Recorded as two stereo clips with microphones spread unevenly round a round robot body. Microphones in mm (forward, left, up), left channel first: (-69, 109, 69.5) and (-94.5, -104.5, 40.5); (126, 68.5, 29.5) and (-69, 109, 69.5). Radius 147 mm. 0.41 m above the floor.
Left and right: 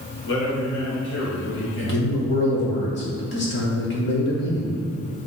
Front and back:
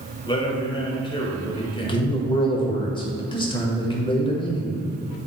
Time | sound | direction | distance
0.3 | a man speaking | 45° left | 1.5 m
1.8 | a man speaking | 45° left | 1.7 m